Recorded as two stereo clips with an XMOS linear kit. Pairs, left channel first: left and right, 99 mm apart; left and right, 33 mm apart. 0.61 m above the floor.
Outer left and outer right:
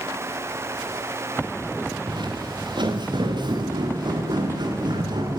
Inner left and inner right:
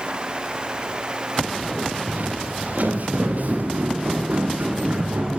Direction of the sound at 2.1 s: 55° right (ahead or behind).